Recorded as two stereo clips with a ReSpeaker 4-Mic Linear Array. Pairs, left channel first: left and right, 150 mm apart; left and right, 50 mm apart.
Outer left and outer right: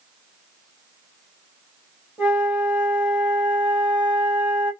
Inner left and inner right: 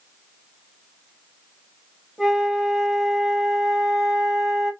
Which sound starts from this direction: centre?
A flute, at 2.2 s.